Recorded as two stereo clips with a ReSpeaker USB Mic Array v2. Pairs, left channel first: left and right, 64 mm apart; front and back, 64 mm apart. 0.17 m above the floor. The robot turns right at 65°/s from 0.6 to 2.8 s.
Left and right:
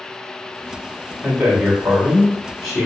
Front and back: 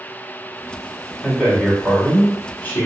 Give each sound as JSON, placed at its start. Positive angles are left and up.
{"t": 1.2, "sound": "a man speaking", "azimuth_deg": -85, "distance_m": 1.2}